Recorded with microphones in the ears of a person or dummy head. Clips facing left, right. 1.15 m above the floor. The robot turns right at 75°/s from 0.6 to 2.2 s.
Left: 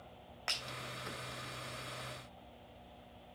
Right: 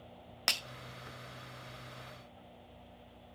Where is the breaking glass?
50° right (ahead or behind), 0.6 m.